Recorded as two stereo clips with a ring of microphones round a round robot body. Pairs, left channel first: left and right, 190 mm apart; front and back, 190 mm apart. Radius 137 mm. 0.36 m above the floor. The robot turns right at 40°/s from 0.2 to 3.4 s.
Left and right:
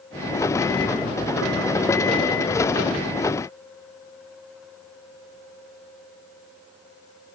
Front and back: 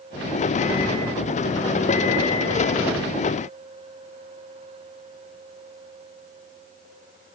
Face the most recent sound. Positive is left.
No sound to turn to.